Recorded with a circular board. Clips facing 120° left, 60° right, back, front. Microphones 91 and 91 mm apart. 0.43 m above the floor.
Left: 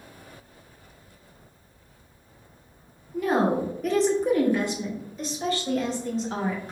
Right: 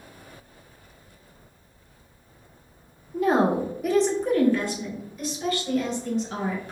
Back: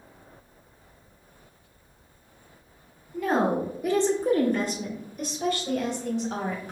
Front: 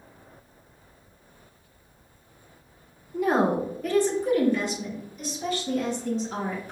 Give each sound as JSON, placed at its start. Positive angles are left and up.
{"t": 3.1, "sound": "a woman speaking", "azimuth_deg": -50, "distance_m": 0.8}